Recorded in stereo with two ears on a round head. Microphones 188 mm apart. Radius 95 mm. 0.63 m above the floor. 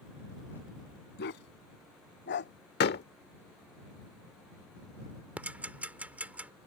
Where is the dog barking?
60° left (ahead or behind); by 2.5 s 55° left (ahead or behind).